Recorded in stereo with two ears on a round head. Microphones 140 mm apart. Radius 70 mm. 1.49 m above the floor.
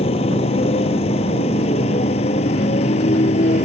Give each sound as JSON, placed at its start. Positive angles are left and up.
{"t": 0.0, "sound": "a motorcycle", "side_deg": 40}